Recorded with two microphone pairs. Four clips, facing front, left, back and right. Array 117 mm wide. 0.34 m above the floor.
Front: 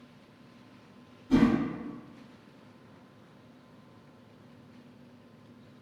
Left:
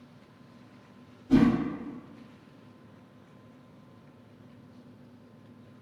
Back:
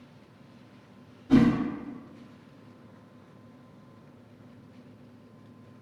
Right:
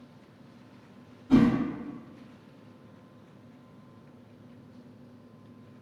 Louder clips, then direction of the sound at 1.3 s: Even, back 3 dB; 175° right.